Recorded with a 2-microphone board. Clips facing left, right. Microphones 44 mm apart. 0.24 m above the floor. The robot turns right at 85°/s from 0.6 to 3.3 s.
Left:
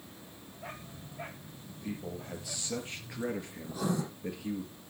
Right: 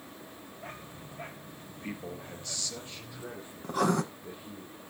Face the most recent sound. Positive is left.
turn(degrees=-65)  # may be behind; listen again after turning